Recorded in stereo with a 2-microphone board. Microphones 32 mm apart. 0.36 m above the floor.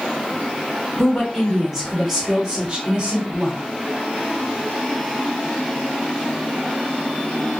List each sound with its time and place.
1.0 s a woman speaking: 5° left (ahead or behind), 1.6 m; by 3.6 s 40° right (ahead or behind), 1.4 m